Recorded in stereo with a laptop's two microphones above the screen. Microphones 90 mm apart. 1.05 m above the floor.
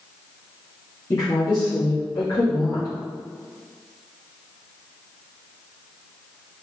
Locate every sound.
1.1 s a woman speaking: 45° left (ahead or behind), 2 m